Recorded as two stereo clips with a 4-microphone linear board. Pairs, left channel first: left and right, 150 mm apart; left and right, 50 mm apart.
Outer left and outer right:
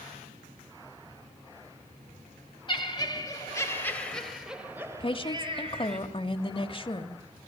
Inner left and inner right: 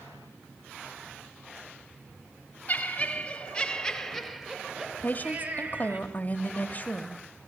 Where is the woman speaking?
35° left (ahead or behind), 1.1 m.